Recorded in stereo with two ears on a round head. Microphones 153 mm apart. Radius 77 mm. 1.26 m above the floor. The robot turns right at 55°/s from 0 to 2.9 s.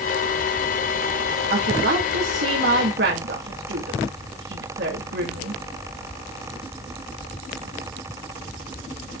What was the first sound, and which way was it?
A woman speaking, 140° right.